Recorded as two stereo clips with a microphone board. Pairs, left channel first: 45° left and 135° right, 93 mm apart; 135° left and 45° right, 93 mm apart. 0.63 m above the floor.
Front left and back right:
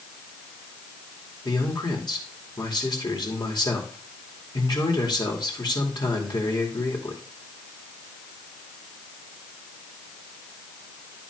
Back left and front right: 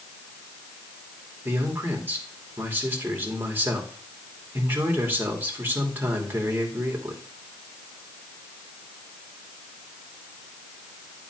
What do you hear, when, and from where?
1.4 s a man speaking: 20° left, 2.5 m